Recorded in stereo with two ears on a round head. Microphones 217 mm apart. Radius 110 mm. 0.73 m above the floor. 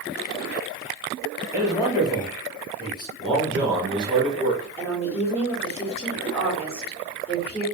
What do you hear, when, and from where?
1.5 s a man speaking: 15° left (ahead or behind), 1.6 m
3.2 s a man speaking: 20° right (ahead or behind), 1.0 m
4.8 s a woman speaking: 10° left (ahead or behind), 1.5 m